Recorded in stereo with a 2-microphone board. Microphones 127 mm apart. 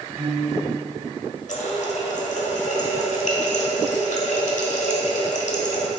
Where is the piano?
15° right (ahead or behind), 2 m.